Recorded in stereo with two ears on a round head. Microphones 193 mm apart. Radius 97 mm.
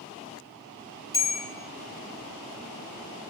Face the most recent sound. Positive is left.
turn(degrees=15)  # may be behind; listen again after turning